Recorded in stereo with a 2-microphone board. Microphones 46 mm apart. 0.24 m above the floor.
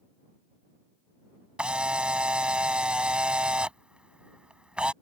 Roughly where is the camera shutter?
Right.